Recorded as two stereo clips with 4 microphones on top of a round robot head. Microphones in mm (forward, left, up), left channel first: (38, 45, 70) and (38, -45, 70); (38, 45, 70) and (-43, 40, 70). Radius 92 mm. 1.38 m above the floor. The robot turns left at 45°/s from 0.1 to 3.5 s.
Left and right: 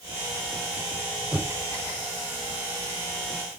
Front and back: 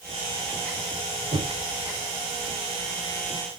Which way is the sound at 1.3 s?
175° right.